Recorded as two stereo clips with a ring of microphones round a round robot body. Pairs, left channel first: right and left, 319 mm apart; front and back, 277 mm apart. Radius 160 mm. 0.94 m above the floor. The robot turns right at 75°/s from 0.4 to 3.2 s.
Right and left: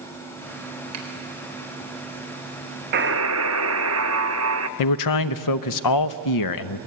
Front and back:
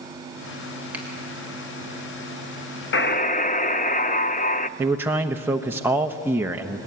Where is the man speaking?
95° right, 0.7 m.